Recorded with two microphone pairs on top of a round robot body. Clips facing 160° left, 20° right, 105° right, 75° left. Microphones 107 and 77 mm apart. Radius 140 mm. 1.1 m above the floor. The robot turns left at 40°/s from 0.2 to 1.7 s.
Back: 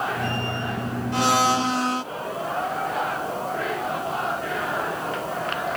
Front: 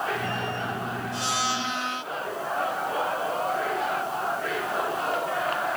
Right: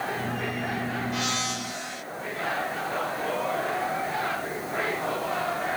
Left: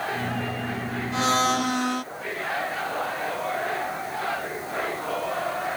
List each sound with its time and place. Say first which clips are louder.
1.1 s a blender: back 11 dB, left 8 dB; 130° left; by 2.0 s 110° left